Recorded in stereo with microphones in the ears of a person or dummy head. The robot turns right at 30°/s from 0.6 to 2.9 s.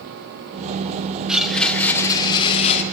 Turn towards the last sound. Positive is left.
turn(degrees=50)